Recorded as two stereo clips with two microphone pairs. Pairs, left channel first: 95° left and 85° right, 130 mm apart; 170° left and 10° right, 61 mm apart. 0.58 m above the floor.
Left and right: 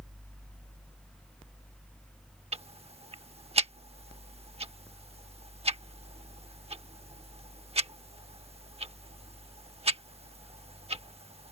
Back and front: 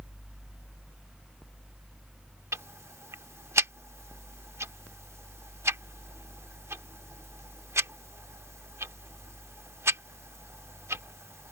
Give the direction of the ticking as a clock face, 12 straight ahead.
2 o'clock.